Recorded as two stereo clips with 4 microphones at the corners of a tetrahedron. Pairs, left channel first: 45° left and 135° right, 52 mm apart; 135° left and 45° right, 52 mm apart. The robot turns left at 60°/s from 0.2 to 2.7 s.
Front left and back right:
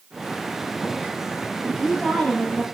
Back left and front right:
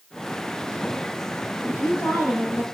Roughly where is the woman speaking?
Behind left.